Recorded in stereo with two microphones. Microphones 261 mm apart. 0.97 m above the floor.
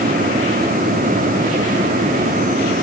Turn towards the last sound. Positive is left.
No sound to turn to.